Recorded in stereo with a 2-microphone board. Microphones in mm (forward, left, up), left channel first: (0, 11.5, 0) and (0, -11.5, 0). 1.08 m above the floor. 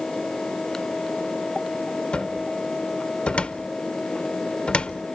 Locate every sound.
2.1 s a cupboard door: 50° left (ahead or behind), 0.6 m